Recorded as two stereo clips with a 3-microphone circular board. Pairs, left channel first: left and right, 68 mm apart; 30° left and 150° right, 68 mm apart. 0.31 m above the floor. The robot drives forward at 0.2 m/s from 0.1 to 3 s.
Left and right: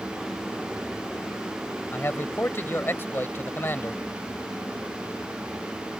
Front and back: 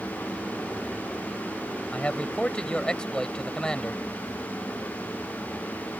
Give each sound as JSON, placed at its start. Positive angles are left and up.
{"t": 1.9, "sound": "a man speaking", "azimuth_deg": 85}